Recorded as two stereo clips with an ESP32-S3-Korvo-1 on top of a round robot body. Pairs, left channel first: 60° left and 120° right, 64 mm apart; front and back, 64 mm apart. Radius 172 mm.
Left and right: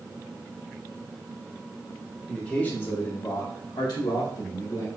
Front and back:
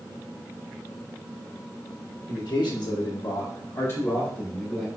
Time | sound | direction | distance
2.3 | a man speaking | 15° right | 1.9 m